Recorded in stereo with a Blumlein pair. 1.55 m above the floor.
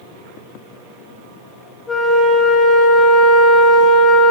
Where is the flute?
15° left, 1.2 m.